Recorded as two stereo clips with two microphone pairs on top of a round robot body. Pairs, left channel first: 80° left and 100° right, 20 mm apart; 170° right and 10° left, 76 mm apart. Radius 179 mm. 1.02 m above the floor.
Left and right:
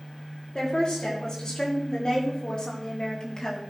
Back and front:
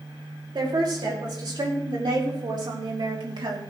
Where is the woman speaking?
25° left, 5.5 m; by 3.6 s 20° left, 3 m.